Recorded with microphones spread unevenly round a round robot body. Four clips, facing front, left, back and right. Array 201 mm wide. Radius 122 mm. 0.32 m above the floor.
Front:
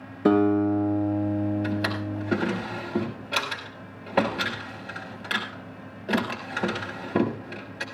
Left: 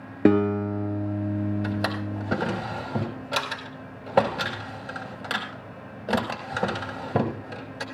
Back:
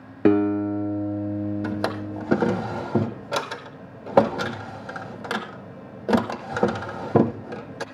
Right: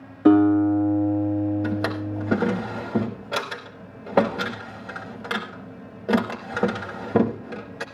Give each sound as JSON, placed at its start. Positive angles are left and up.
{"t": 0.2, "sound": "a guitar", "azimuth_deg": 115, "distance_m": 3.0}
{"t": 1.6, "sound": "a drawer", "azimuth_deg": -160, "distance_m": 0.6}